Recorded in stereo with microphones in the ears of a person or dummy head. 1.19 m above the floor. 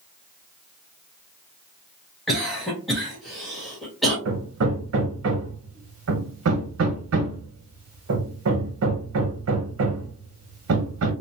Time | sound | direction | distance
2.3 | a cough | centre (ahead or behind) | 1.5 m
4.2 | hammering | 80° right | 0.8 m